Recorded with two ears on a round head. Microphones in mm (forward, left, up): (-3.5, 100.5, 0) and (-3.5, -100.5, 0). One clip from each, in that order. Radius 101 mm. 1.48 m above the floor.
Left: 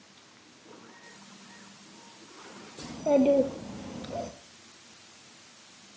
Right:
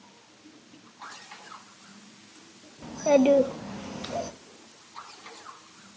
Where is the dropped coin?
No dropped coin in this recording.